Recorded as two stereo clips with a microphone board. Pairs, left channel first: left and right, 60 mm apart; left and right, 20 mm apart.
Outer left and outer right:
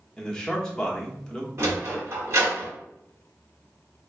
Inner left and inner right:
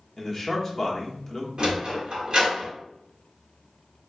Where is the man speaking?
10° left (ahead or behind), 1.0 m.